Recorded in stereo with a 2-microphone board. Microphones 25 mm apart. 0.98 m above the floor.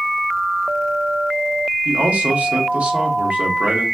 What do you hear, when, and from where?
1.9 s a man speaking: 75° right (ahead or behind), 1.3 m